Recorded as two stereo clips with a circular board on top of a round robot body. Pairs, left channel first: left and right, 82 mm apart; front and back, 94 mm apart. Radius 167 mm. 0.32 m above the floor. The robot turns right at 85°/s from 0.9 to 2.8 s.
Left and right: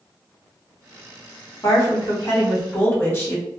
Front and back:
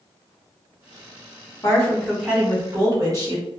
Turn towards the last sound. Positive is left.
turn(degrees=145)